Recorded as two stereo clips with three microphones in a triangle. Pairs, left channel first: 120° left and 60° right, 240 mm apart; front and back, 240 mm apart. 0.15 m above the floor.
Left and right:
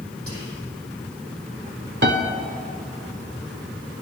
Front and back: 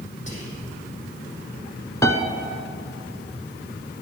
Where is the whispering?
60° right, 5 m.